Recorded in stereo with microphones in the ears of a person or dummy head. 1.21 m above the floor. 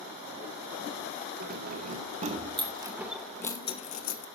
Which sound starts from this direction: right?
Keys jangling, at 1.4 s.